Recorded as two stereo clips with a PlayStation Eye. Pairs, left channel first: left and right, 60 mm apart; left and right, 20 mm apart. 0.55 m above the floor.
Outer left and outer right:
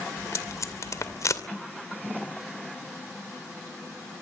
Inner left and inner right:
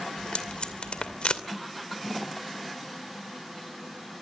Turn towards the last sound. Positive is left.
turn(degrees=60)  # may be behind; listen again after turning